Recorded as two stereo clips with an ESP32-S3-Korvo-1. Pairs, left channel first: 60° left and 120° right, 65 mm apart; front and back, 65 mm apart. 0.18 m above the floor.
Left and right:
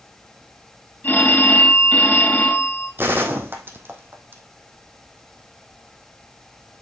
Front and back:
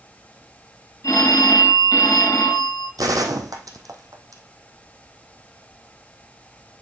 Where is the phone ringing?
10° left, 2 m.